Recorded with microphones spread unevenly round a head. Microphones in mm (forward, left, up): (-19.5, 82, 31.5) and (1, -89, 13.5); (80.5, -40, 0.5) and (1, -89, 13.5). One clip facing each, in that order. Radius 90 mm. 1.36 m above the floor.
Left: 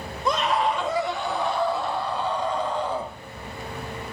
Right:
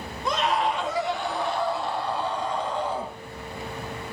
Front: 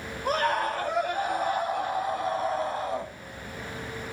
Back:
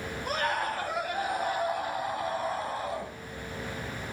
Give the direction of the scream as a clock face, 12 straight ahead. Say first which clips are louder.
Left 2 dB, front 5 dB; 9 o'clock.